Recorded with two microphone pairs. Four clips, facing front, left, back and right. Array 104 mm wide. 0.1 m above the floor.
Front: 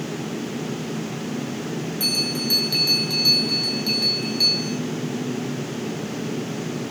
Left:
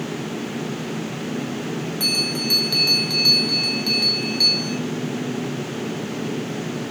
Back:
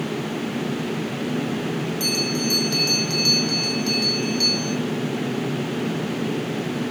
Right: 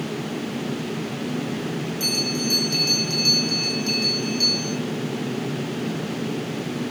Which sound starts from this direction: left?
A bell, at 2.0 s.